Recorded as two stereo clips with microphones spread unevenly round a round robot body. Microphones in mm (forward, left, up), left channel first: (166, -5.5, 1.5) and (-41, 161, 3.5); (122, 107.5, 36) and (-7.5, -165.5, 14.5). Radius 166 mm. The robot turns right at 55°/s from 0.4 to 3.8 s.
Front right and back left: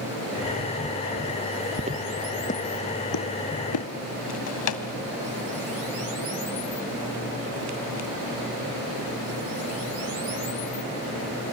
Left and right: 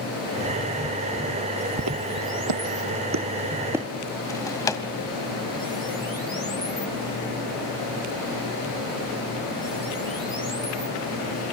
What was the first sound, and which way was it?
Footsteps, 160° right.